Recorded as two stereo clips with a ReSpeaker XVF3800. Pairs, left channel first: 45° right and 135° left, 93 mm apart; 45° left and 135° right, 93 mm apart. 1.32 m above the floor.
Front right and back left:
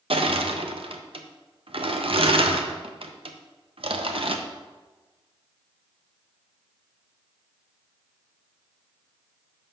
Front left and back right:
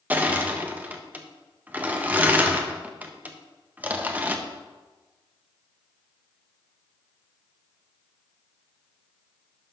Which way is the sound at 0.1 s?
155° left.